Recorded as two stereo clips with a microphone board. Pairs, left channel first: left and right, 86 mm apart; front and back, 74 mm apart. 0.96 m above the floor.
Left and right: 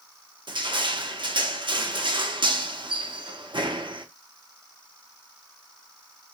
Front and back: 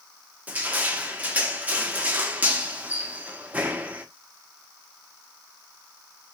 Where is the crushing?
110° right, 1.0 m.